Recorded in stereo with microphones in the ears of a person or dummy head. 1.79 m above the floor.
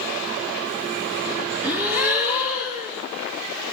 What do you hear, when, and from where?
1.6 s a gasp: 15° right (ahead or behind), 2.5 m